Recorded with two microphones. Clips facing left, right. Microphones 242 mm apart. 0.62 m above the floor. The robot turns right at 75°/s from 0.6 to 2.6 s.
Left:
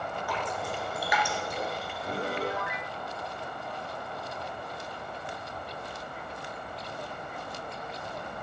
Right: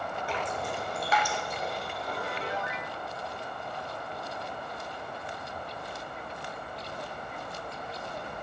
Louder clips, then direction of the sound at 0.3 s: Right 1 dB; 25° right (ahead or behind).